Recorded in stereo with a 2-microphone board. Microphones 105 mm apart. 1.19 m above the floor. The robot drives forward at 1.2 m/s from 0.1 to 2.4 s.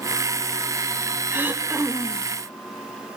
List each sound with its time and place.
1.3 s throat clearing: 15° right (ahead or behind), 1.5 m; by 2.3 s 10° right (ahead or behind), 2.5 m